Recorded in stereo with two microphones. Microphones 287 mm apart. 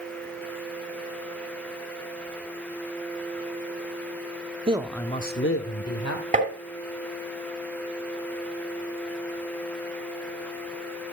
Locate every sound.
4.7 s a man speaking: 20° right (ahead or behind), 0.7 m; by 6.2 s 65° left (ahead or behind), 1.6 m
6.3 s tapping: 25° right (ahead or behind), 2.5 m